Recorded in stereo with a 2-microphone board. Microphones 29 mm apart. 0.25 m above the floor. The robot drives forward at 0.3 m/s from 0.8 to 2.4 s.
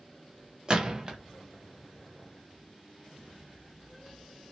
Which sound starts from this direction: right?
A gunshot, at 0.7 s.